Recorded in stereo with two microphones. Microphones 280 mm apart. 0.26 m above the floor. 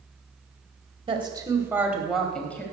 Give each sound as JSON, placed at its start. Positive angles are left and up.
{"t": 1.1, "sound": "a woman speaking", "side_deg": -20, "distance_m": 1.3}